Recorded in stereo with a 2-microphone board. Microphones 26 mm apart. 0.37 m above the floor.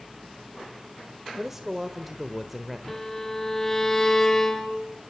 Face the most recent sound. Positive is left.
turn(degrees=15)  # may be behind; listen again after turning